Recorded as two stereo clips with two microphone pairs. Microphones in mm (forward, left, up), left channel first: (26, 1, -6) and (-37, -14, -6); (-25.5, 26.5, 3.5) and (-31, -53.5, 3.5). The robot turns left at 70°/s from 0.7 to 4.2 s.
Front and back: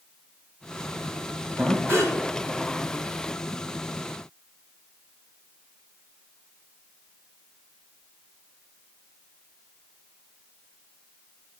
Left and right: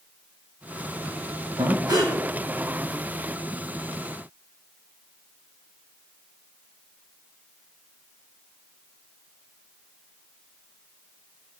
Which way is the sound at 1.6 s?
100° right.